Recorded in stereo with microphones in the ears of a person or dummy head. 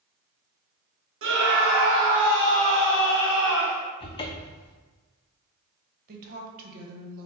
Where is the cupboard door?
30° left (ahead or behind), 0.5 m.